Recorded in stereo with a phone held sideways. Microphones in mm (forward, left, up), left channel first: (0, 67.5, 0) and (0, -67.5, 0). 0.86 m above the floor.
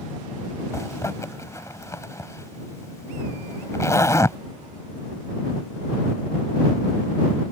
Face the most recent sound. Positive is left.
turn(degrees=20)  # may be behind; listen again after turning